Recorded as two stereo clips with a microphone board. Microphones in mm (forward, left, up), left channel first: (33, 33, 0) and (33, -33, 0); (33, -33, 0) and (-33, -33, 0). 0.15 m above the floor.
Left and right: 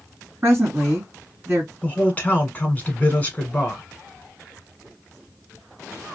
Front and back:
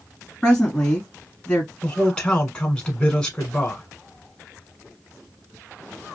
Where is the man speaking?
60° left, 1.3 m.